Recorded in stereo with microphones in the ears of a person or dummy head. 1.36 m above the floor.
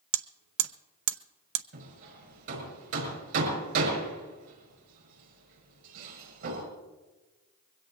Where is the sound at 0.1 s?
65° right (ahead or behind), 0.8 m.